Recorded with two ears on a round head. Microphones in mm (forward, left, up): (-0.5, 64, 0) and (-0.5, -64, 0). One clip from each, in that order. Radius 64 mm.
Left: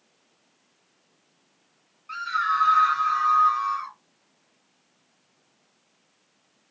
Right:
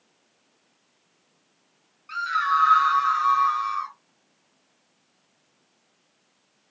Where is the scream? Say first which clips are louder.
Right 2 dB; 25° right (ahead or behind), 1.5 m; by 4.0 s 40° right (ahead or behind), 1.6 m.